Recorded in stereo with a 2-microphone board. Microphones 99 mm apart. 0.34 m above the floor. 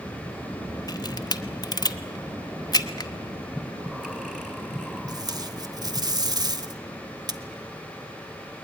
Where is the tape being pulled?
40° right (ahead or behind), 0.9 m.